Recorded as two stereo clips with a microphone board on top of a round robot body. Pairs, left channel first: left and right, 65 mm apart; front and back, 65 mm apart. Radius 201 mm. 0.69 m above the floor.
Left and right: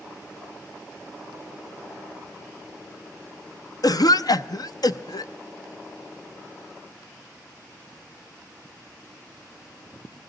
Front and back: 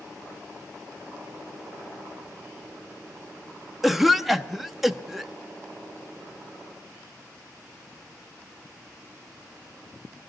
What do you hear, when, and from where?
3.8 s a cough: 95° left, 0.7 m